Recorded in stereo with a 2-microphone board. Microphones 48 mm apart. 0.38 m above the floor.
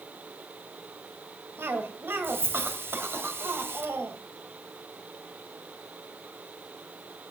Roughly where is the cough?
Right.